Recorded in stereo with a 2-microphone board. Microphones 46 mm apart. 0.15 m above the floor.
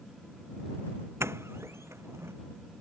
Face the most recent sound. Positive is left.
turn(degrees=-75)  # may be behind; listen again after turning